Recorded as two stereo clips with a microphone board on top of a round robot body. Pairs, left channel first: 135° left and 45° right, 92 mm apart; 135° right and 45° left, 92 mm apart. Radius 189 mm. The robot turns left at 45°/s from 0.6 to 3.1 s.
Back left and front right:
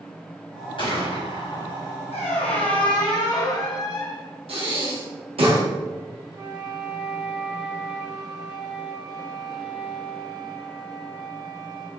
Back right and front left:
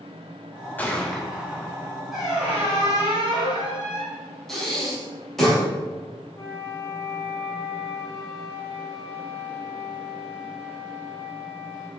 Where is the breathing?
50° right, 3 m.